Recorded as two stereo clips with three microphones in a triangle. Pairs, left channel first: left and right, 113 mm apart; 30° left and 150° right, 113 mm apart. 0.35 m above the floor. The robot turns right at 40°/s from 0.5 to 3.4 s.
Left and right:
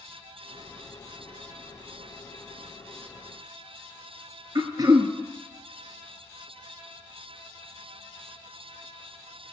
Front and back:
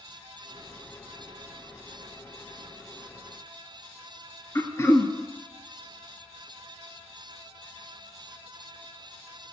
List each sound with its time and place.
4.5 s throat clearing: 35° right, 1.0 m